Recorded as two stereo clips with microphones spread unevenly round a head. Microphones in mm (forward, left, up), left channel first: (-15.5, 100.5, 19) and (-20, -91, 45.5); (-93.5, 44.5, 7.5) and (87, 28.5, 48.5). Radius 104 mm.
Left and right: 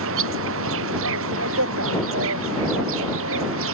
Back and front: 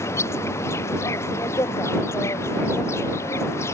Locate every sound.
0.0 s an insect: 105° right